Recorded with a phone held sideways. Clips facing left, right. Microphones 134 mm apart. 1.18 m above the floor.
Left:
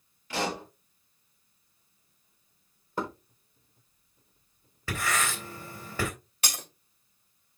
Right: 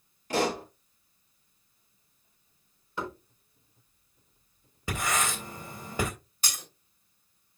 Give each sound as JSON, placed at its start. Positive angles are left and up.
{"t": 0.3, "sound": "a pop", "side_deg": -45, "distance_m": 6.5}
{"t": 3.0, "sound": "knocking", "side_deg": 45, "distance_m": 4.0}
{"t": 4.9, "sound": "writing", "side_deg": -20, "distance_m": 3.0}
{"t": 6.4, "sound": "breaking glass", "side_deg": 80, "distance_m": 3.0}